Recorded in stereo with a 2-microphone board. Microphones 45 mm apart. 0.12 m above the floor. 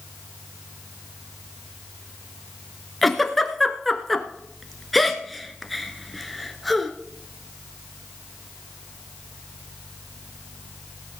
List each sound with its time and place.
3.0 s a giggle: centre (ahead or behind), 1.1 m